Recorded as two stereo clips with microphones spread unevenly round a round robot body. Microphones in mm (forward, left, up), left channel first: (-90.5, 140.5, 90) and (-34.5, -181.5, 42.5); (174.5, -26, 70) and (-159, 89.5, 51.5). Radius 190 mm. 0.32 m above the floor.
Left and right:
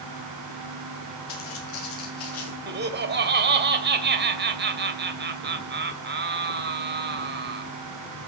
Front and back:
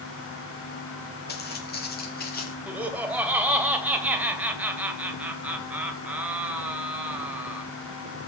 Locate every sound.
1.3 s footsteps: 45° left, 5 m
2.7 s laughter: 115° right, 2.0 m